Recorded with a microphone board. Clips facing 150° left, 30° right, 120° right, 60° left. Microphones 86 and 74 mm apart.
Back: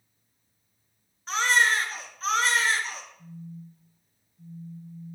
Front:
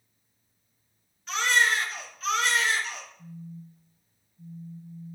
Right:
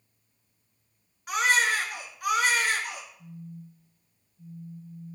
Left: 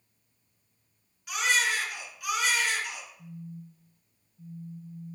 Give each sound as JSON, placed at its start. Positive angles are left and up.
{"t": 1.3, "sound": "a baby crying", "azimuth_deg": -160, "distance_m": 1.6}
{"t": 3.2, "sound": "a phone buzzing", "azimuth_deg": 40, "distance_m": 0.8}